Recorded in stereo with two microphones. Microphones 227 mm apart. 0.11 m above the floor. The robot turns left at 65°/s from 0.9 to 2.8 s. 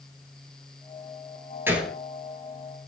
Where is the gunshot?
10° right (ahead or behind), 0.6 m; by 2.0 s 5° left (ahead or behind), 0.6 m.